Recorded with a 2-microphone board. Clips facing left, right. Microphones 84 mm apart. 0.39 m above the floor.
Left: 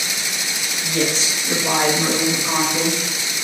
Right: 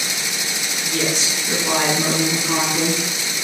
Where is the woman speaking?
30° left (ahead or behind), 1.5 m; by 3.0 s 45° left (ahead or behind), 1.3 m.